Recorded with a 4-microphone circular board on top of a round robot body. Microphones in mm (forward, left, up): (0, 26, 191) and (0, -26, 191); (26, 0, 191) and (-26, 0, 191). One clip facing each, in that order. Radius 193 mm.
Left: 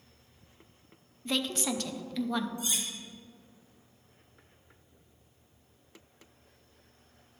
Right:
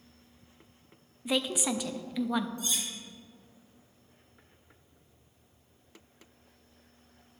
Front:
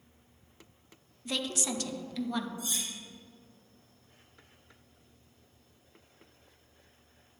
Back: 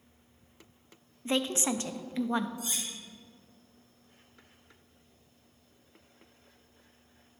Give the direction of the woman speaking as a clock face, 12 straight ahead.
5 o'clock.